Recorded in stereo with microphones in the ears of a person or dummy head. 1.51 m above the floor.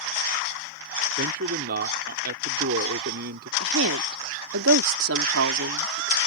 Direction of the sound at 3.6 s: 75° right (ahead or behind).